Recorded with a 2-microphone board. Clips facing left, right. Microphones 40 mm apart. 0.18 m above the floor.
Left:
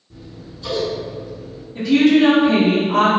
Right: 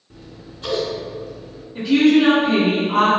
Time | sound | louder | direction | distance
0.1 | scissors | left 2 dB | 50° right (ahead or behind) | 0.6 m
1.8 | a woman speaking | left 1 dB | 20° right (ahead or behind) | 1.5 m